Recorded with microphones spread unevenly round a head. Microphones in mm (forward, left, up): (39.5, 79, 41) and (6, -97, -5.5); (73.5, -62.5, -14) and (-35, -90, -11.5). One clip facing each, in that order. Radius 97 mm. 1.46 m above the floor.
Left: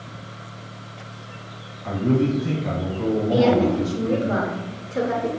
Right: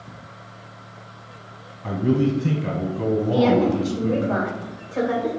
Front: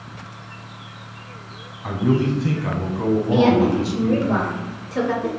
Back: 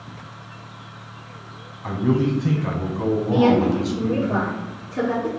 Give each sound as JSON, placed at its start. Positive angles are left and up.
{"t": 1.8, "sound": "a man speaking", "azimuth_deg": -75, "distance_m": 0.9}
{"t": 3.3, "sound": "a woman speaking", "azimuth_deg": 20, "distance_m": 0.9}